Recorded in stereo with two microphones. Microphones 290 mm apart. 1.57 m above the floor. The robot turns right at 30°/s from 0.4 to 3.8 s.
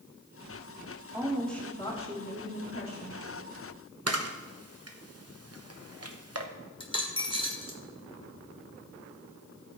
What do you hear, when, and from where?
1.1 s a woman speaking: 10° right, 3.5 m; by 3.2 s 55° left, 3.5 m
4.1 s a camera shutter: 50° right (ahead or behind), 1.0 m
6.8 s a dropped coin: 15° left (ahead or behind), 1.2 m